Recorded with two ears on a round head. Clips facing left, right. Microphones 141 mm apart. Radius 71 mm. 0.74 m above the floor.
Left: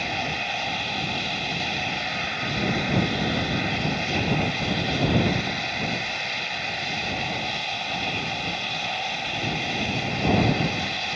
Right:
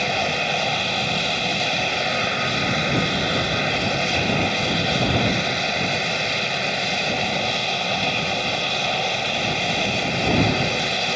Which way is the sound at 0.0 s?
60° right (ahead or behind).